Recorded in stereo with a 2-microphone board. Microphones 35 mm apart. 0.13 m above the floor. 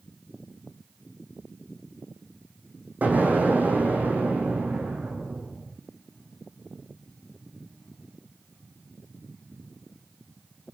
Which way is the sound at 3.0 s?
50° right (ahead or behind).